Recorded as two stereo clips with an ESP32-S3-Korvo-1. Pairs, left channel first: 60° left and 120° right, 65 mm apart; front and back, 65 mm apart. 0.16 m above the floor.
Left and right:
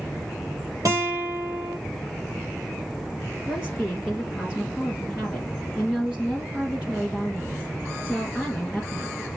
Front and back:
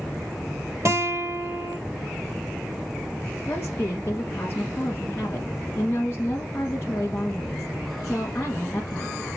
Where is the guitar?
140° right, 4.5 m.